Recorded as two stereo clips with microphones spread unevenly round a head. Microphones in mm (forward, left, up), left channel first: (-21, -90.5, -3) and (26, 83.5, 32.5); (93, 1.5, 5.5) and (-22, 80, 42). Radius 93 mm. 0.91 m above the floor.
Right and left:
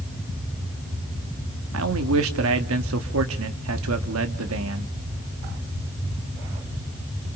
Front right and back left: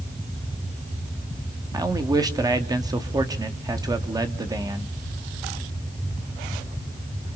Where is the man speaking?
80° left, 2 m.